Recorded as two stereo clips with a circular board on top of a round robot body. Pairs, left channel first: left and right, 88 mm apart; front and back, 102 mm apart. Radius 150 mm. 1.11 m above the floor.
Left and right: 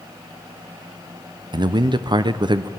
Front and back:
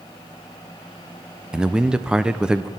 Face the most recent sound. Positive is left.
turn(degrees=-100)